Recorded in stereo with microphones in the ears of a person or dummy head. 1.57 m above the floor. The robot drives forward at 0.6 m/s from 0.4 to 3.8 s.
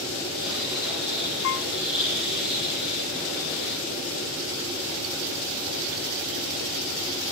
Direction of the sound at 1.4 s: 60° left (ahead or behind).